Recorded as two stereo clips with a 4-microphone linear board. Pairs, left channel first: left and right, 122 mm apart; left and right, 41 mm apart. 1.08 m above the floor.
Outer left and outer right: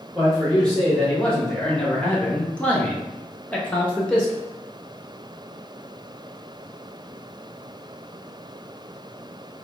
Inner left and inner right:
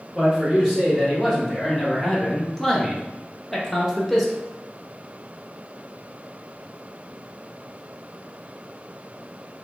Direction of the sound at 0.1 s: 5° left (ahead or behind).